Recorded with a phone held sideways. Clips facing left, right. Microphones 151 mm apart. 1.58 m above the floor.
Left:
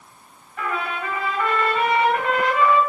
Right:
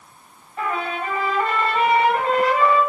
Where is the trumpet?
30° right (ahead or behind), 1.6 m.